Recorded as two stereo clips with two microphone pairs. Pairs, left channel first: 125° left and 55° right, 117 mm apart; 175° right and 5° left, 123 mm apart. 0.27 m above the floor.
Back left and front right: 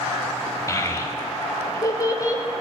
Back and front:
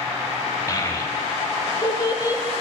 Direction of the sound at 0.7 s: 155° left.